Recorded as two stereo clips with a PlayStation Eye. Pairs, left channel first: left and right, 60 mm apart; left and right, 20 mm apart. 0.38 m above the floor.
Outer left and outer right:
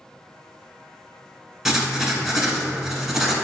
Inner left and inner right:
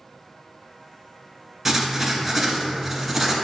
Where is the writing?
Centre (ahead or behind), 0.7 m.